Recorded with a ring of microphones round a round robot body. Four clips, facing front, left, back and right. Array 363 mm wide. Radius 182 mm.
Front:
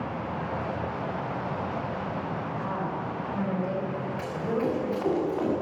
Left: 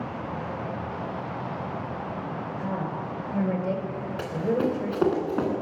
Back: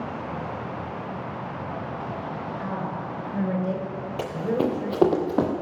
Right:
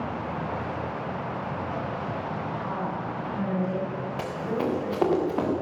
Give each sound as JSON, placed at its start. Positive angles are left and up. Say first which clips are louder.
{"t": 2.6, "sound": "a woman speaking", "louder": "even, even", "azimuth_deg": 125, "distance_m": 4.0}
{"t": 4.2, "sound": "running footsteps", "louder": "left 4 dB, back 5 dB", "azimuth_deg": 155, "distance_m": 4.5}